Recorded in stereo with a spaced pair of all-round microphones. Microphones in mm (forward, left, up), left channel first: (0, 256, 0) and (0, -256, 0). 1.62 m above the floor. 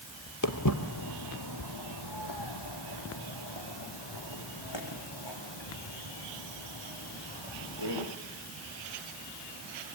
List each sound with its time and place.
0.4 s footsteps: 40° left (ahead or behind), 2.0 m; by 8.0 s 65° left (ahead or behind), 9 m